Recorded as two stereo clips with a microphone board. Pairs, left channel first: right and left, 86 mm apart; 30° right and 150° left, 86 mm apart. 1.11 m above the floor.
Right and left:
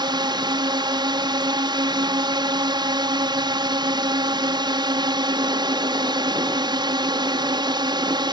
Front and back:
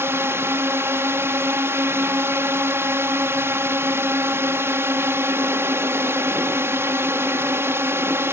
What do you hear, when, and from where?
0.0 s a drone: 95° left